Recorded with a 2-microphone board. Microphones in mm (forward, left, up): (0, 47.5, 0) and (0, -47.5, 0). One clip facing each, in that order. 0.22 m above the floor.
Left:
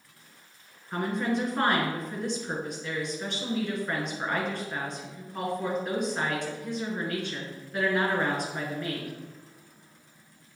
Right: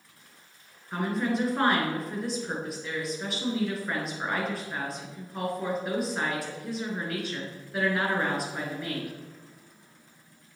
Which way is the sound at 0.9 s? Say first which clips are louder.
Even; 5° right (ahead or behind).